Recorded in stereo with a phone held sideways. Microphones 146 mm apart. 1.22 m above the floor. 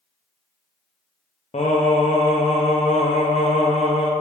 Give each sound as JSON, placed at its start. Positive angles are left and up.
{"t": 1.5, "sound": "singing", "side_deg": 50, "distance_m": 0.5}